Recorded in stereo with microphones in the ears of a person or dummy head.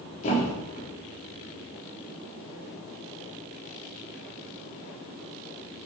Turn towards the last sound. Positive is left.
turn(degrees=50)  # may be behind; listen again after turning